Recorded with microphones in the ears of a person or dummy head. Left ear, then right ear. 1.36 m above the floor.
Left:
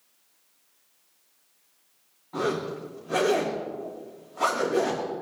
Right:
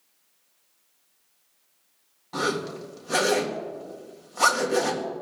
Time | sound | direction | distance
2.3 | a zipper | 85° right | 2 m